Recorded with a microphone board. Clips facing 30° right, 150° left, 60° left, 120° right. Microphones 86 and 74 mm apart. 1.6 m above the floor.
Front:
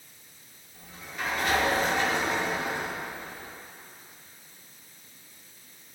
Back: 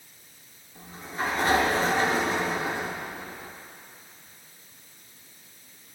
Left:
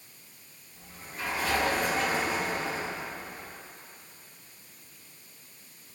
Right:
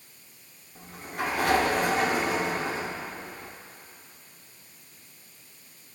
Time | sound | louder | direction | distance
0.8 | a sliding door | back 5 dB, right 7 dB | 155° right | 1.2 m